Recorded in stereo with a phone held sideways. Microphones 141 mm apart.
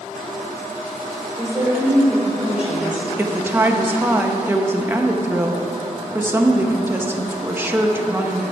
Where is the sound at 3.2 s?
15° right (ahead or behind), 0.7 m.